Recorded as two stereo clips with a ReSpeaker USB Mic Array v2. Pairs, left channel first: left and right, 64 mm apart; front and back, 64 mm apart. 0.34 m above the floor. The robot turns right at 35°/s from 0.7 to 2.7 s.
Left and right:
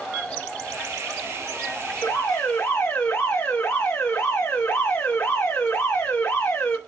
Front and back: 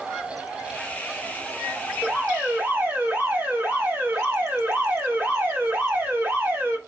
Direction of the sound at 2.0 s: 110° left.